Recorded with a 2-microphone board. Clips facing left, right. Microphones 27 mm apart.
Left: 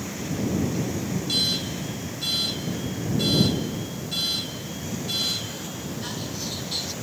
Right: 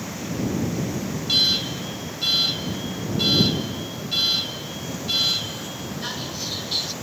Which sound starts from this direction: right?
An alarm, at 1.3 s.